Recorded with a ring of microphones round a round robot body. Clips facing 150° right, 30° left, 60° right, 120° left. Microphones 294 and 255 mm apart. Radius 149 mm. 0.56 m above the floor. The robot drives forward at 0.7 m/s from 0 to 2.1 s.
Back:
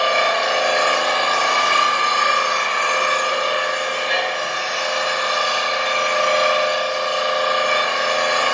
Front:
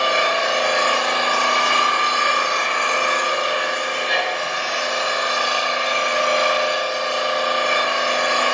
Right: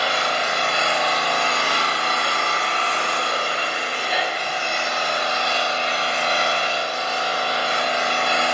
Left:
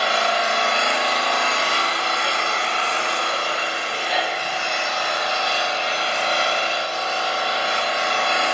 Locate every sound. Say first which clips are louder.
0.0 s an engine running: back 1 dB, left 2 dB; 95° left, 0.9 m; by 8.6 s 155° left, 1.8 m